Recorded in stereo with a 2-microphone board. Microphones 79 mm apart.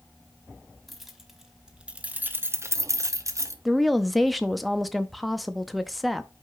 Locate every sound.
0.9 s keys jangling: centre (ahead or behind), 1.3 m; by 3.5 s 40° right (ahead or behind), 0.8 m
3.6 s a woman speaking: centre (ahead or behind), 0.6 m